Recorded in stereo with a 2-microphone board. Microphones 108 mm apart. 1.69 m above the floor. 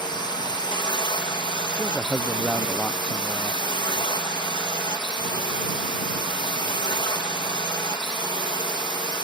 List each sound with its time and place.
0.0 s a drone: 45° left (ahead or behind)
1.7 s a man speaking: 10° left (ahead or behind)